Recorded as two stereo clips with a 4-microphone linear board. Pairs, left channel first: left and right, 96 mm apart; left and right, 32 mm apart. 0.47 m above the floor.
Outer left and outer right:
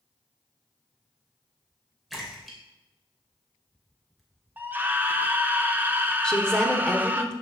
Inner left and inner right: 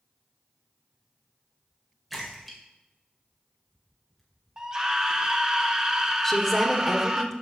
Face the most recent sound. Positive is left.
turn(degrees=10)  # may be behind; listen again after turning